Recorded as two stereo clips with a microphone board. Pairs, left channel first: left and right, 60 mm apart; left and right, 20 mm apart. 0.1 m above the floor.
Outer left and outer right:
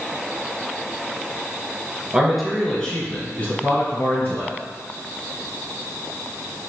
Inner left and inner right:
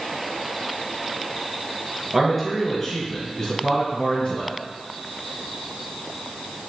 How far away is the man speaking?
About 1.2 m.